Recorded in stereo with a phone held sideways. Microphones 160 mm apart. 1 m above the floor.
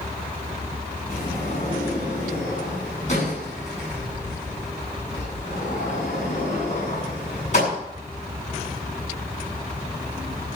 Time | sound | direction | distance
1.1 | a sliding door | 50° left (ahead or behind) | 8 m